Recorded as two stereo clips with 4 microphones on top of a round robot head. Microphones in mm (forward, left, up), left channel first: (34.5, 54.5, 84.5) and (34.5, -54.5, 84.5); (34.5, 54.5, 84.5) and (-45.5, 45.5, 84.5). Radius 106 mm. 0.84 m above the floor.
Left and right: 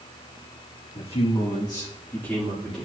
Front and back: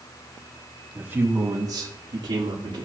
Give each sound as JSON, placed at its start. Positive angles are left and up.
{"t": 0.9, "sound": "a man speaking", "azimuth_deg": 115, "distance_m": 1.4}